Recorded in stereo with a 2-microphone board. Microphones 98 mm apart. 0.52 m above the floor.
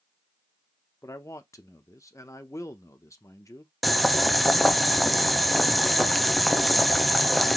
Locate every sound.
1.0 s a man speaking: 30° left (ahead or behind), 0.8 m
3.8 s boiling: centre (ahead or behind), 0.6 m